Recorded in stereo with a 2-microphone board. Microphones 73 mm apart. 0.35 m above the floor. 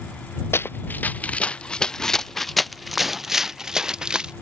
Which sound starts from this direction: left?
Running footsteps, at 0.5 s.